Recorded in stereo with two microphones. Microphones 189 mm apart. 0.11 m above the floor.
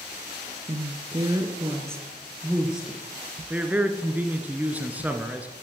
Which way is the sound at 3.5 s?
10° right (ahead or behind).